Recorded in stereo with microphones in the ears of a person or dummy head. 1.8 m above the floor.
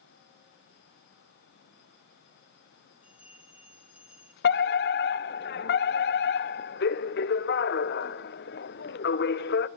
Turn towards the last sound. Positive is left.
turn(degrees=55)  # may be behind; listen again after turning